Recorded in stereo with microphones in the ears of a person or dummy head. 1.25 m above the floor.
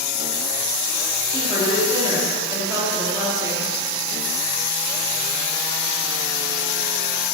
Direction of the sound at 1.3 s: 20° right (ahead or behind).